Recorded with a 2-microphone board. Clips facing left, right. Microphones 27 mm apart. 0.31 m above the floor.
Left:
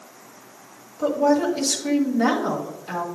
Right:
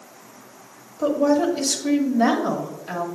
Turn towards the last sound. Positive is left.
turn(degrees=-5)  # may be behind; listen again after turning